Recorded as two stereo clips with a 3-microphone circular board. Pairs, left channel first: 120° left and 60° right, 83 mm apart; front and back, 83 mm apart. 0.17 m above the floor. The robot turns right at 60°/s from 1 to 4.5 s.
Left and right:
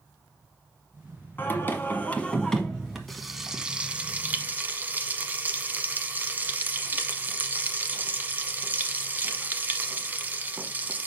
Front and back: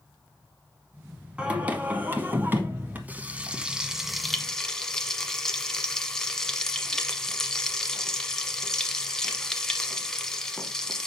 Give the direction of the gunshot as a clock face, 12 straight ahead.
I don't hear a gunshot.